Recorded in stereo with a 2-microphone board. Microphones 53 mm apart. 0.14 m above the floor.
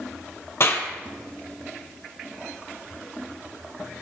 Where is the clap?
55° left (ahead or behind), 2.5 m.